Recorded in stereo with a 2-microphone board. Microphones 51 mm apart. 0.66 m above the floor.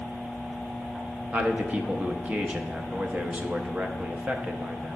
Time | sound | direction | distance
1.3 | a man speaking | 30° right (ahead or behind) | 0.5 m